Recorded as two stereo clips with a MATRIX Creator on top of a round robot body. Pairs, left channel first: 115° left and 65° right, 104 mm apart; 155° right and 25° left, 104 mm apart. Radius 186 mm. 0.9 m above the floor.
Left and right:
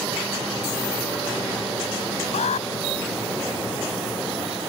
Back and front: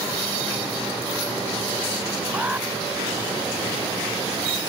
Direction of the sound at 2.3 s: 100° left.